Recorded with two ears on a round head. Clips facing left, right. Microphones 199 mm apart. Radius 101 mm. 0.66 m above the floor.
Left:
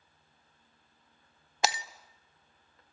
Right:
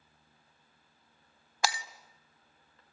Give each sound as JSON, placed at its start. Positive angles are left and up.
{"t": 1.6, "sound": "breaking glass", "side_deg": 20, "distance_m": 0.7}